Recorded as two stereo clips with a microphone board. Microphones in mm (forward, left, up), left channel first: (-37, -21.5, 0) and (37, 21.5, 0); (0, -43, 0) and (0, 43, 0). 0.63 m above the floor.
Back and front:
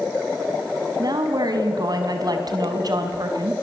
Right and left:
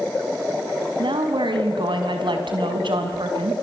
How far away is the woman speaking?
About 4.5 m.